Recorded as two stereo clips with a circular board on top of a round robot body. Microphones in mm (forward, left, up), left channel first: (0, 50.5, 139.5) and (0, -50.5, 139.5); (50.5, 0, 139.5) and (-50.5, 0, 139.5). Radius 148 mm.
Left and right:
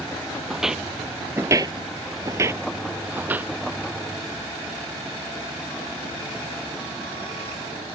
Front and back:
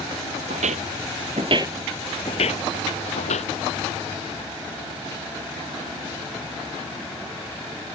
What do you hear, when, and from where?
0.5 s footsteps: straight behind; by 3.5 s 15° right